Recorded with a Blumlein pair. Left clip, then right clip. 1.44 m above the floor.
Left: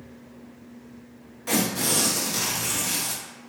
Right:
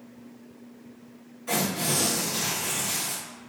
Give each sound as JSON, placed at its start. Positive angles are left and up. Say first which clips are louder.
{"t": 1.5, "sound": "tearing paper", "louder": "left 2 dB", "azimuth_deg": 55, "distance_m": 1.0}